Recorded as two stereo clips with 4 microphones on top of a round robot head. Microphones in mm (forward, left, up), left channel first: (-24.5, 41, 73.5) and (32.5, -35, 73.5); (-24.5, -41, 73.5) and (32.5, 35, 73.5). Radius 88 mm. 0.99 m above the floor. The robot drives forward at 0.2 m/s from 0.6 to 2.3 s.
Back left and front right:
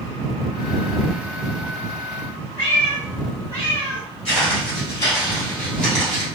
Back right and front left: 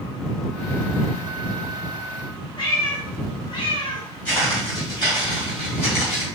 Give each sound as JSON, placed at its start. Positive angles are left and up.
{"t": 2.6, "sound": "a cat meowing", "azimuth_deg": -170, "distance_m": 0.8}
{"t": 4.2, "sound": "footsteps", "azimuth_deg": 160, "distance_m": 2.0}